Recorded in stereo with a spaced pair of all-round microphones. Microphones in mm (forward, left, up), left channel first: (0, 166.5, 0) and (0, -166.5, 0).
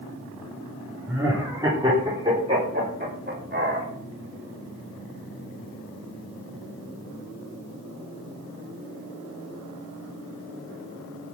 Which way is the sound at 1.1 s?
5° right (ahead or behind).